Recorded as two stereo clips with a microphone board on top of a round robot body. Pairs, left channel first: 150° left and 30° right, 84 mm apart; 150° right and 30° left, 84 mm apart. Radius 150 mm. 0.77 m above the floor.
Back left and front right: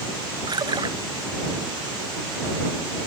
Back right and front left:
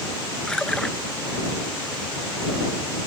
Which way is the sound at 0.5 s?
70° right.